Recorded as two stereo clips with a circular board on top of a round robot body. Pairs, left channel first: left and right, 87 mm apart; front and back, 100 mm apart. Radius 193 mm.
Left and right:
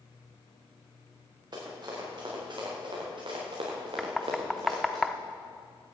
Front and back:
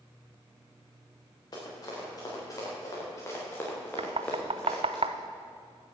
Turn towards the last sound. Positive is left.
turn(degrees=180)